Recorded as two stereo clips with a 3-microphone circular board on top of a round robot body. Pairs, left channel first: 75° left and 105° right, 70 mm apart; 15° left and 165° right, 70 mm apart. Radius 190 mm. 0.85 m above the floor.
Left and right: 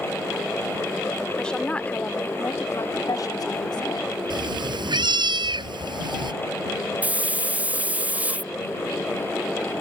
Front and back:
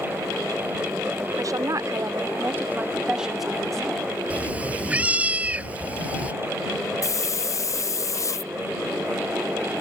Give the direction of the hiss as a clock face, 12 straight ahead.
1 o'clock.